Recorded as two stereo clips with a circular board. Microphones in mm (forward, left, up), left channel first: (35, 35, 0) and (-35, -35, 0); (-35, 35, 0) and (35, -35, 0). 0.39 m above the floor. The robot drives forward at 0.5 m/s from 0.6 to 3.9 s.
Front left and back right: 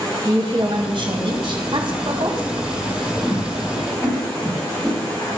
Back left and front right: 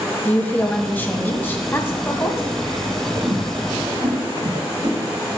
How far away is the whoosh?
About 4 m.